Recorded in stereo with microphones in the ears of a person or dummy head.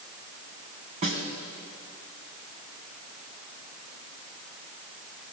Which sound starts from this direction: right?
A snare drum, at 1.0 s.